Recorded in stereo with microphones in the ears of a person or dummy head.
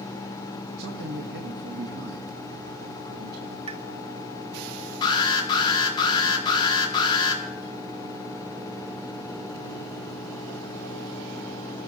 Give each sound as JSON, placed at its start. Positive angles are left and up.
{"t": 0.8, "sound": "a man speaking", "side_deg": -60, "distance_m": 1.7}
{"t": 3.7, "sound": "a pop", "side_deg": -30, "distance_m": 1.1}
{"t": 5.0, "sound": "an alarm", "side_deg": 25, "distance_m": 3.5}